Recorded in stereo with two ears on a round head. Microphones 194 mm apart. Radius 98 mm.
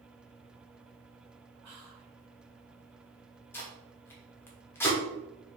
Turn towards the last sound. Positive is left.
turn(degrees=10)  # may be behind; listen again after turning